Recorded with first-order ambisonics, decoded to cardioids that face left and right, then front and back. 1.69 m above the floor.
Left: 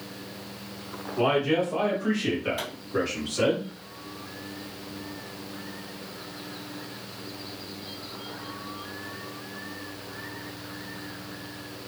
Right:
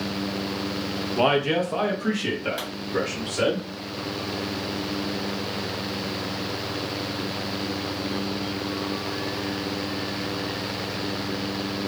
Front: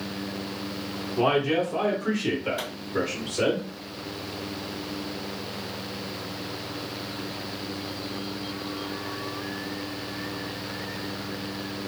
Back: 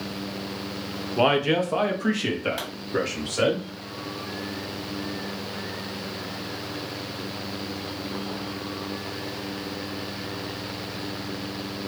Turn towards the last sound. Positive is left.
turn(degrees=-155)